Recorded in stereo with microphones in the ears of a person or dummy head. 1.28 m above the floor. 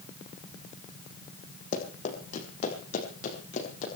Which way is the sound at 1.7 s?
40° left (ahead or behind).